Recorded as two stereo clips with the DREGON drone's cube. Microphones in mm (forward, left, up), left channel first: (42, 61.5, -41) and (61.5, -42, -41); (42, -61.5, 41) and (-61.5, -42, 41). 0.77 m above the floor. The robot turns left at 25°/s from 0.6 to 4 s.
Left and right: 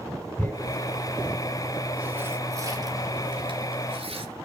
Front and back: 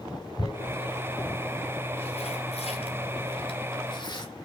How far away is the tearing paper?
About 2 m.